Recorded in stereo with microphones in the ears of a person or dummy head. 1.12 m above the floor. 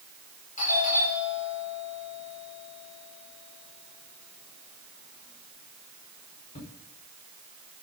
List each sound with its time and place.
0.6 s a doorbell: 40° left (ahead or behind), 5 m